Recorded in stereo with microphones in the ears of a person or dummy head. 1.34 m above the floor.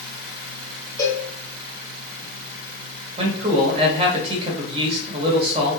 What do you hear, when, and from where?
1.0 s a cowbell: 10° left (ahead or behind), 0.7 m
3.2 s a man speaking: 20° right (ahead or behind), 1.3 m